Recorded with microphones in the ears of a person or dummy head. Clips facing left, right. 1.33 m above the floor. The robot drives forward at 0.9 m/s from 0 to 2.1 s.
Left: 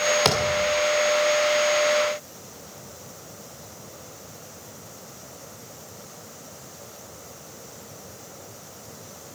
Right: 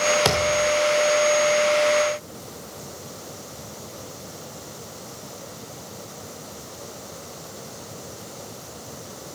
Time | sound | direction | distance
0.2 | a thud | 5° right (ahead or behind) | 1.8 m